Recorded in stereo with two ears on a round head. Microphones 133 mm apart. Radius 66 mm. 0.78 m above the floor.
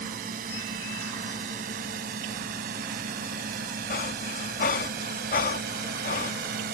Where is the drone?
60° right (ahead or behind); by 6.7 s 65° right (ahead or behind).